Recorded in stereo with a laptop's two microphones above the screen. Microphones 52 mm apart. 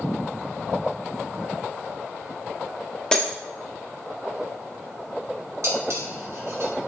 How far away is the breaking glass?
About 0.6 m.